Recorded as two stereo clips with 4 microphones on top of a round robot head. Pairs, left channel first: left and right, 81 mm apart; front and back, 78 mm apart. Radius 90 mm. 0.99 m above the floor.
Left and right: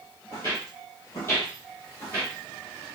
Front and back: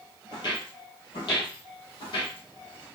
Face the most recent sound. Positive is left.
turn(degrees=20)